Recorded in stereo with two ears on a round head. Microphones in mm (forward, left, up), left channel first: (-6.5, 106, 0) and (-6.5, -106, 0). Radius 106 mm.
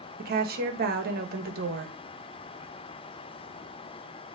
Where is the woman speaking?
40° right (ahead or behind), 1.3 m.